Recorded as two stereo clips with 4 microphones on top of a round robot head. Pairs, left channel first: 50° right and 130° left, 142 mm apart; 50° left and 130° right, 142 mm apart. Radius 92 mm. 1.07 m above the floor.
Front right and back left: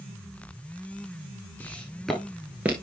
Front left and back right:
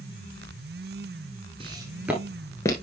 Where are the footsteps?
120° right, 1.1 m; by 2.7 s 70° left, 1.0 m.